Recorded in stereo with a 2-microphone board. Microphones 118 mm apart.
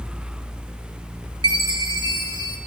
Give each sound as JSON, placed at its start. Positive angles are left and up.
{"t": 1.4, "sound": "a chime", "side_deg": -40, "distance_m": 0.7}